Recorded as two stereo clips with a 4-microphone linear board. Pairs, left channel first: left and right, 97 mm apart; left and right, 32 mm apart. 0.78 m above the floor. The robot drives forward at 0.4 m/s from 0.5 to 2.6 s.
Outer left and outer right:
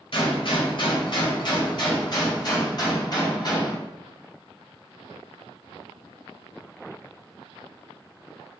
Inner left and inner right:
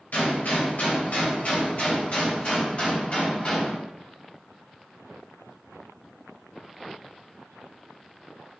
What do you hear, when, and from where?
0.1 s a gunshot: 60° left (ahead or behind), 2.5 m; by 3.8 s 45° left (ahead or behind), 3 m